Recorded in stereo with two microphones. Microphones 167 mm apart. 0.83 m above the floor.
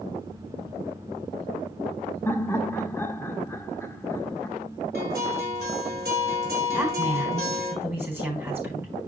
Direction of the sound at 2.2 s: 15° left (ahead or behind).